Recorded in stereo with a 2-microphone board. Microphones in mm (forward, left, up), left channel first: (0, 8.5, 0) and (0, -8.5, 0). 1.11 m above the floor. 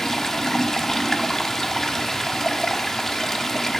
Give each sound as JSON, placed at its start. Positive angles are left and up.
{"t": 0.0, "sound": "running water", "side_deg": 25, "distance_m": 1.0}